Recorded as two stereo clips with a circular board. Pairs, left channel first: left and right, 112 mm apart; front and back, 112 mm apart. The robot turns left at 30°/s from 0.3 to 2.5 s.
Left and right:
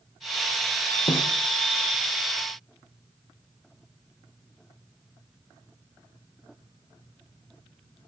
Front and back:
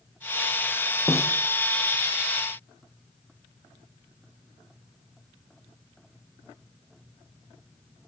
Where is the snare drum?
65° left, 2.5 m; by 1.3 s 55° left, 2.5 m.